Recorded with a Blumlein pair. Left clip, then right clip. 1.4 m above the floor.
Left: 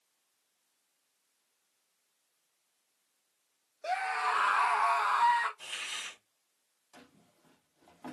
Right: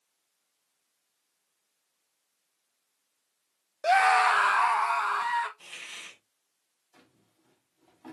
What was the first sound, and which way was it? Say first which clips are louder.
A scream: right 11 dB; 65° right.